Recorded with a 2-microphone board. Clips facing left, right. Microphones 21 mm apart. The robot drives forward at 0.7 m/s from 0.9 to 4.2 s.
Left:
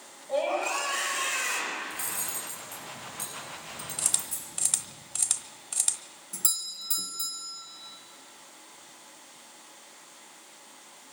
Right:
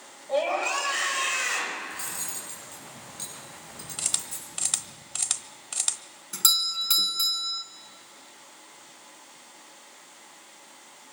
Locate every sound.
0.3 s a scream: 20° right (ahead or behind), 5.5 m
1.9 s cutlery clinking: 20° right (ahead or behind), 7.5 m
4.0 s a camera shutter: 20° right (ahead or behind), 1.1 m
6.3 s a doorbell: 60° right (ahead or behind), 1.7 m